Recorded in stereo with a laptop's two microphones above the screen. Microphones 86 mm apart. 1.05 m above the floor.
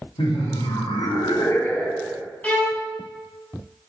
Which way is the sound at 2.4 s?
15° left (ahead or behind).